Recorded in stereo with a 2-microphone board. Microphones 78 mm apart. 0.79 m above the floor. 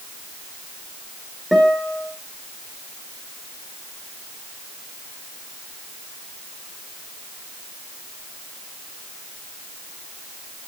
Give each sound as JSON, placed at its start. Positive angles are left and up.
{"t": 1.5, "sound": "a guitar", "side_deg": 0, "distance_m": 4.0}